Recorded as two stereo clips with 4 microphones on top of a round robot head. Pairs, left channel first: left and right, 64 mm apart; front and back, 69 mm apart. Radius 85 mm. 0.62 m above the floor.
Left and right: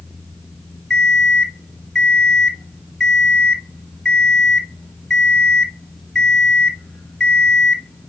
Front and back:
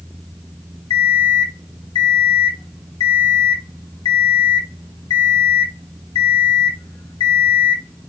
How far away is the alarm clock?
About 2.5 m.